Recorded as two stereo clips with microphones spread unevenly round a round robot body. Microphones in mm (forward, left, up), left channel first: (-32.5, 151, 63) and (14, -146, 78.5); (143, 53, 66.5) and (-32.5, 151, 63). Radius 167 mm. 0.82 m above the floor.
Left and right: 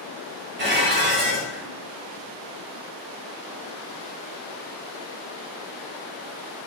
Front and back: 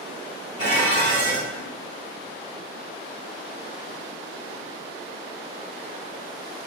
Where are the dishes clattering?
135° right, 3 m.